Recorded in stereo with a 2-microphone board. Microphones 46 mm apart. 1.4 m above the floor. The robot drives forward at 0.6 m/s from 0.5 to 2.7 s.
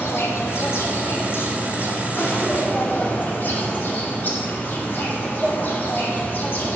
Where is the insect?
70° left (ahead or behind), 1.6 m; by 6.8 s 40° left (ahead or behind), 2.5 m.